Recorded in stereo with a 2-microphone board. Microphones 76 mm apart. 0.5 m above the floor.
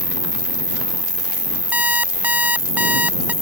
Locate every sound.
0.0 s an insect: 45° left (ahead or behind)
1.7 s an alarm clock: 20° right (ahead or behind)